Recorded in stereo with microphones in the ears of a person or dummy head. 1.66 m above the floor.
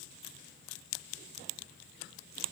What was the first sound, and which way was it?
Only background noise.